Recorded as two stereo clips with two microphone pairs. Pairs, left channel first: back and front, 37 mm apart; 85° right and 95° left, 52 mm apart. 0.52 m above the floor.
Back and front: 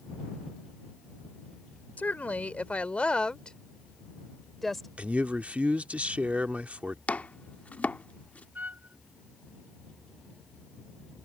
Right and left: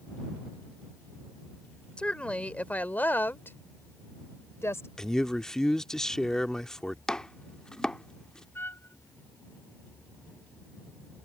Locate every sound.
2.0 s a woman speaking: 150° right; by 4.9 s 95° right
5.0 s a man speaking: 10° right
7.1 s chopping: 155° right
8.6 s a trumpet: 40° right